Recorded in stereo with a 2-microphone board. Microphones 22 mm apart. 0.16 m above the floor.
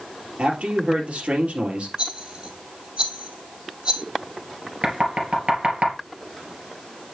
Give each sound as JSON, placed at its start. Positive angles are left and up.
{"t": 0.4, "sound": "a man speaking", "side_deg": -60, "distance_m": 3.0}
{"t": 2.0, "sound": "a rattle", "side_deg": -35, "distance_m": 3.0}
{"t": 4.8, "sound": "knocking", "side_deg": -50, "distance_m": 2.5}